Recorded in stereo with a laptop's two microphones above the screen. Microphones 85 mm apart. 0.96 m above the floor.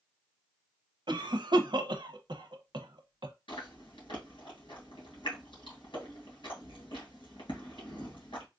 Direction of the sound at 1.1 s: 65° right (ahead or behind).